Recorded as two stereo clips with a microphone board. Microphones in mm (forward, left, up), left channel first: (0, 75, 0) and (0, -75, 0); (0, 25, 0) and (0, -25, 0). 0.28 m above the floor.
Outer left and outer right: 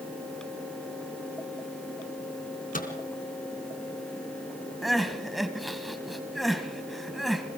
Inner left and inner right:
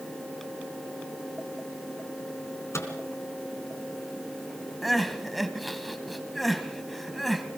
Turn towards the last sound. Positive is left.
turn(degrees=0)  # may be behind; listen again after turning